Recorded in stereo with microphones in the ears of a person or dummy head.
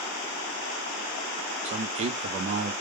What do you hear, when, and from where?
1.6 s a man speaking: 35° right (ahead or behind), 0.5 m